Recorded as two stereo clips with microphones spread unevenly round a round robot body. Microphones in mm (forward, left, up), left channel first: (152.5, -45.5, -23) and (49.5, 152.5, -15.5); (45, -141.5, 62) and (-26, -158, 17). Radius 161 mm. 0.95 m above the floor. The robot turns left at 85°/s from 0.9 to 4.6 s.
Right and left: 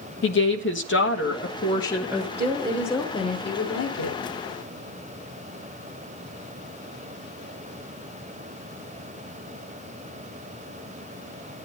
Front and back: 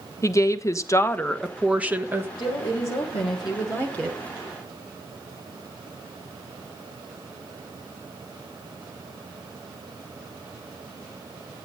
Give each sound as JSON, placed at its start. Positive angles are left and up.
{"t": 0.2, "sound": "a woman speaking", "azimuth_deg": -55, "distance_m": 1.4}
{"t": 2.4, "sound": "a woman speaking", "azimuth_deg": 70, "distance_m": 2.5}